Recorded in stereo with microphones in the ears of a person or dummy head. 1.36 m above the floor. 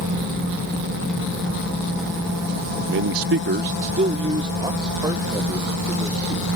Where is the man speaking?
50° right (ahead or behind); by 6.5 s 15° right (ahead or behind).